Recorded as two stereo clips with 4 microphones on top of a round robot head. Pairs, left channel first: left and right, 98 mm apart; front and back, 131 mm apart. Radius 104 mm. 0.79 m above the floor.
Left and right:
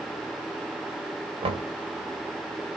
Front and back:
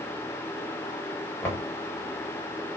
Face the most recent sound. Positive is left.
turn(degrees=-75)